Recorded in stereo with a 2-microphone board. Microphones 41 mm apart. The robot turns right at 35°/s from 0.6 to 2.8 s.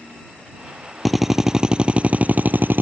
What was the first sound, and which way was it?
A drill, straight behind.